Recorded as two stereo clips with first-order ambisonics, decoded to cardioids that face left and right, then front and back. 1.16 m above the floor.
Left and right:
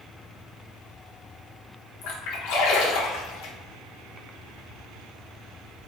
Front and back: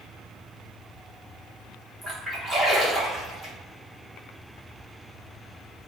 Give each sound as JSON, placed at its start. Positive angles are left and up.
{"t": 2.0, "sound": "a splash", "azimuth_deg": 95, "distance_m": 1.0}